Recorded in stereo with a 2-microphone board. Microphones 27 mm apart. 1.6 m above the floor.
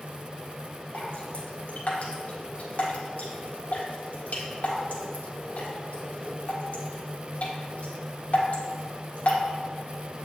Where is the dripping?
55° left (ahead or behind), 1.4 m.